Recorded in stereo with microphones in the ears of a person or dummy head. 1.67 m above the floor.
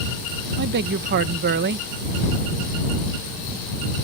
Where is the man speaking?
60° right (ahead or behind).